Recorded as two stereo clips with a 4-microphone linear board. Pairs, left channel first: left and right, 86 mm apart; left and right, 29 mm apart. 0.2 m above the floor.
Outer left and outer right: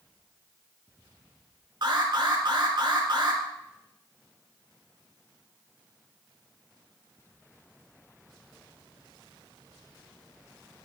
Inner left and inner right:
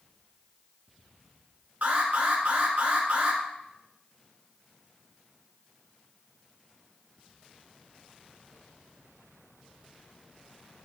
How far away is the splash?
No splash in this recording.